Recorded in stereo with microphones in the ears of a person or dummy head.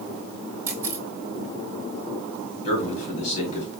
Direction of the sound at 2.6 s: 40° left (ahead or behind).